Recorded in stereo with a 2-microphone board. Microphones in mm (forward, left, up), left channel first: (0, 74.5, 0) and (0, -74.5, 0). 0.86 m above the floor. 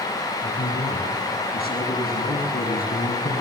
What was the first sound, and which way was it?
A man speaking, 75° left (ahead or behind).